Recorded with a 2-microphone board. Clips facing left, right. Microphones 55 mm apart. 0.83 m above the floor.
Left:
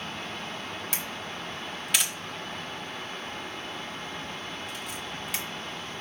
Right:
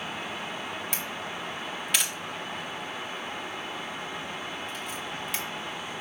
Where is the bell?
No bell in this recording.